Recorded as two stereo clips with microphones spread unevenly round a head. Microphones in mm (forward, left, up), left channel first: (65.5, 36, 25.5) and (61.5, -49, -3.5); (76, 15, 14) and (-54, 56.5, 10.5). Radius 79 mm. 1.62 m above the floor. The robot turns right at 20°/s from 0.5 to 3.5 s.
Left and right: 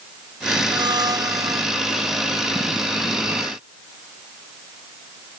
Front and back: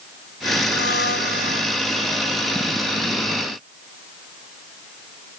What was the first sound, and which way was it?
A blender, 55° right.